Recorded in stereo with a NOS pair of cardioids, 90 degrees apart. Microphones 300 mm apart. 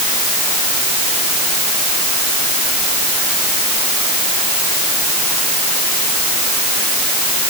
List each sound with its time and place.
Only background noise.